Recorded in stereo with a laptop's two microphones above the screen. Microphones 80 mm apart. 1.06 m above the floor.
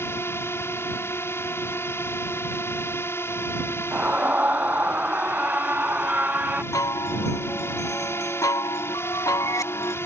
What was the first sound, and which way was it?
A drone, 30° left (ahead or behind).